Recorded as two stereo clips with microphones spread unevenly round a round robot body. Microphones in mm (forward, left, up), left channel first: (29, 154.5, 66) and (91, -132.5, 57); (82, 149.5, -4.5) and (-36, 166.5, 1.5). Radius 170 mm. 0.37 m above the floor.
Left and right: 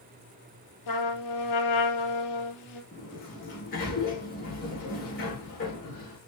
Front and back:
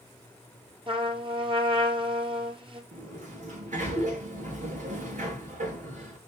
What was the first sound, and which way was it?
A trumpet, 125° left.